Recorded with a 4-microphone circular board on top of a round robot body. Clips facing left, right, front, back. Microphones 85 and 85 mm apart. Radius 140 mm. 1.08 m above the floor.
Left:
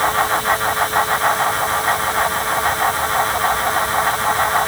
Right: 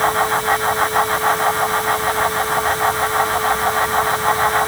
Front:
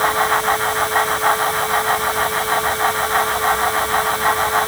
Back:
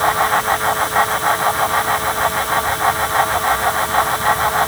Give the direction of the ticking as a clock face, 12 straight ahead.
I don't hear ticking.